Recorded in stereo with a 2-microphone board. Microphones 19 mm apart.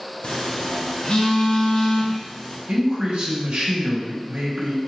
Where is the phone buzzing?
50° left (ahead or behind), 0.7 m.